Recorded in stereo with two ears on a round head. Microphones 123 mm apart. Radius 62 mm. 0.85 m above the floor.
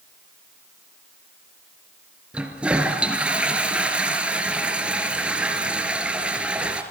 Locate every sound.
2.3 s a toilet flushing: 10° right (ahead or behind), 2 m